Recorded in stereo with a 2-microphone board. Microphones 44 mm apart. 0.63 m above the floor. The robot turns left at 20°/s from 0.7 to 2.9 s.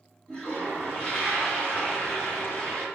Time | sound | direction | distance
0.3 | a toilet flushing | 140° left | 1.2 m